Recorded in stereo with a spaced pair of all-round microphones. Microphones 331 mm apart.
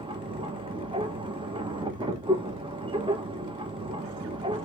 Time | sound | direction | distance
0.0 | a machine running | 15° right (ahead or behind) | 1.5 m